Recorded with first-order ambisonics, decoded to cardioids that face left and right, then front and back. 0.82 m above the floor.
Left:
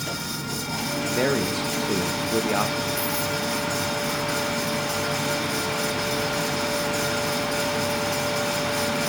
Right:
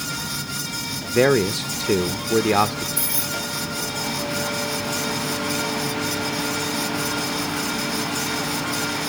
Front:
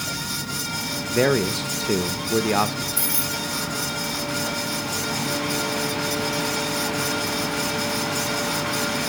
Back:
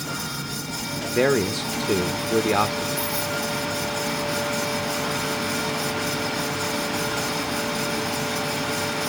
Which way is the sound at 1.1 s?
85° right.